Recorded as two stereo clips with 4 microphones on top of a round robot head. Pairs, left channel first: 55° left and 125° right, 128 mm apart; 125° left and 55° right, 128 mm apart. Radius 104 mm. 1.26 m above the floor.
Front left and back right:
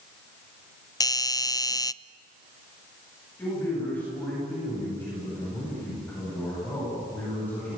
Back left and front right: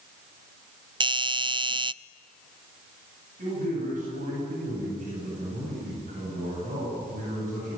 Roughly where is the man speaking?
Ahead right.